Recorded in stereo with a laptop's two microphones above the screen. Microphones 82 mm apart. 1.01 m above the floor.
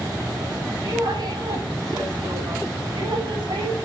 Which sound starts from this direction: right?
A woman speaking, at 0.8 s.